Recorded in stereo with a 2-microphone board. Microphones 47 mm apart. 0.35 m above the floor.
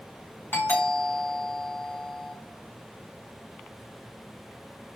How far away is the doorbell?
About 4.5 m.